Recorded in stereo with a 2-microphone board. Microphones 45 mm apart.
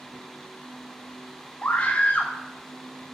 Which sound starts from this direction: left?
A scream, at 1.6 s.